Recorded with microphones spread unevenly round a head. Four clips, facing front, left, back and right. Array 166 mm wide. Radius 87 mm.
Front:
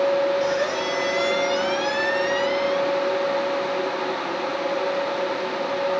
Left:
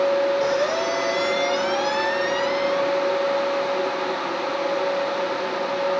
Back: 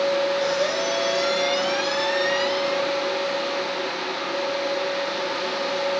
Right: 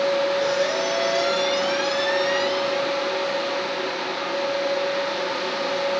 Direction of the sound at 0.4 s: 80° left.